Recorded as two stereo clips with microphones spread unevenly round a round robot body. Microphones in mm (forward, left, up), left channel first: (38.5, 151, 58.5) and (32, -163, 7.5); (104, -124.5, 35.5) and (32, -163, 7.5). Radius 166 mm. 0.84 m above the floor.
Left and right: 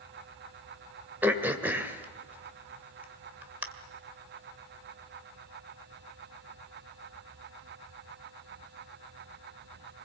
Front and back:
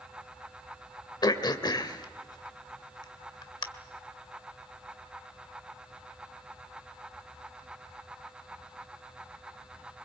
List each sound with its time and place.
1.2 s throat clearing: 5° right, 2 m